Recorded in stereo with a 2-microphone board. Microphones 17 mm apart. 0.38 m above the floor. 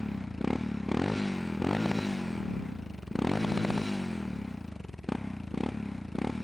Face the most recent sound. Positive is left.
turn(degrees=0)  # may be behind; listen again after turning